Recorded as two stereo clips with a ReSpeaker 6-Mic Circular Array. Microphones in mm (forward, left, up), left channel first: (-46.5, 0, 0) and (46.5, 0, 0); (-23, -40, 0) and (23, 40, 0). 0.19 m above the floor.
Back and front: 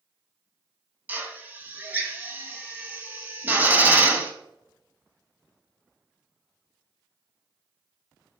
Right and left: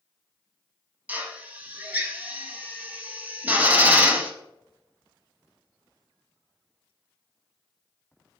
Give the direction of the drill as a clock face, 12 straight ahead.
11 o'clock.